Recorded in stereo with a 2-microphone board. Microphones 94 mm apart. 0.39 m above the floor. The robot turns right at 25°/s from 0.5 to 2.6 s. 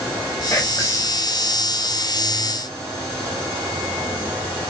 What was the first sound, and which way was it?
Whispering, 35° left (ahead or behind).